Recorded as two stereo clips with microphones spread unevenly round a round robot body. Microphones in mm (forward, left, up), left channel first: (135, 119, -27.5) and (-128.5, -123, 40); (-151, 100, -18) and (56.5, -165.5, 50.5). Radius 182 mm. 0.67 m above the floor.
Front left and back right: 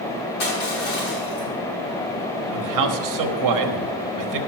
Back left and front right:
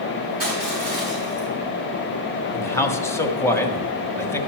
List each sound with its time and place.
0.4 s crushing: 15° left, 6 m
2.5 s a man speaking: 165° right, 1.2 m